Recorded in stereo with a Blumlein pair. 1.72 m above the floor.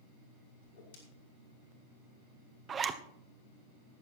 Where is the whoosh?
60° left, 4.5 m.